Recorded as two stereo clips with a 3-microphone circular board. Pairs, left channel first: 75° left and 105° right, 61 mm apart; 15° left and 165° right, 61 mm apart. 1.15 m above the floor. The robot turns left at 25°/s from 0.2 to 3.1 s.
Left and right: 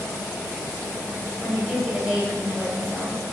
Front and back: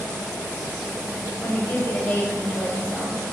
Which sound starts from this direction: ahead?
A woman speaking, at 1.4 s.